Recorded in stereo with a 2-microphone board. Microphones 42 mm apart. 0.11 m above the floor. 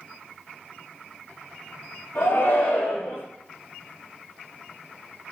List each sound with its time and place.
2.1 s a shout: 55° left (ahead or behind), 3.5 m